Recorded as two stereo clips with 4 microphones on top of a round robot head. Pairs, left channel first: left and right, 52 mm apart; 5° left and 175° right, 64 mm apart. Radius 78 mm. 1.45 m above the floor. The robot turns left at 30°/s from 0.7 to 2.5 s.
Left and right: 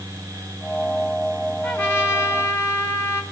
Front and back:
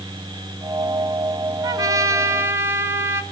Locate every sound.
1.6 s a trumpet: 155° left, 2.5 m; by 3.2 s 130° left, 2.5 m